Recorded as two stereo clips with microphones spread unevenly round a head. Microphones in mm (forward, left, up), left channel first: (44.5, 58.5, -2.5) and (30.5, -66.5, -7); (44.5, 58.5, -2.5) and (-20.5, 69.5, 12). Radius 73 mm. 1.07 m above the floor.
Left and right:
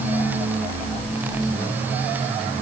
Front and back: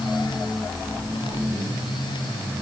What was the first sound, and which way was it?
Only background noise.